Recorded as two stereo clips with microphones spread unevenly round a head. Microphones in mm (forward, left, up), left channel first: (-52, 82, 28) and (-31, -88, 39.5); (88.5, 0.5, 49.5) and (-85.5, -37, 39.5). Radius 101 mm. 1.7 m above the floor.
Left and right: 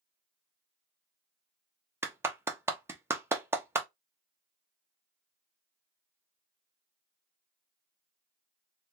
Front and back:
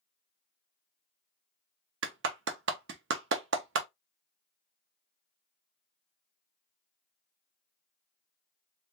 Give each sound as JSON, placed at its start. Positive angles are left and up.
{"t": 2.0, "sound": "a clap", "azimuth_deg": -155, "distance_m": 0.7}